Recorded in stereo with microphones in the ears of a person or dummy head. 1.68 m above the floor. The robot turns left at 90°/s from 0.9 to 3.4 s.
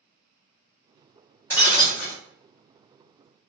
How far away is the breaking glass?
About 1.6 m.